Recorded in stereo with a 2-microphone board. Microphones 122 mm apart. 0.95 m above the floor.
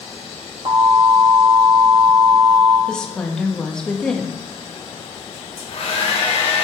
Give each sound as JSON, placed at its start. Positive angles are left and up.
{"t": 0.7, "sound": "an alarm", "side_deg": -55, "distance_m": 2.5}
{"t": 2.9, "sound": "a woman speaking", "side_deg": 5, "distance_m": 1.3}
{"t": 5.3, "sound": "a hair dryer", "side_deg": 55, "distance_m": 3.5}